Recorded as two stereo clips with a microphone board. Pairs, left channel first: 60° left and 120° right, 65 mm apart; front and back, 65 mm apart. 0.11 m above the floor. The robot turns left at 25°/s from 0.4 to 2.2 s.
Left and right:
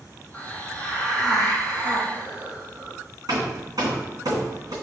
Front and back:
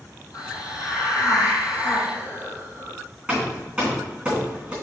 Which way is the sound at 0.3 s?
10° right.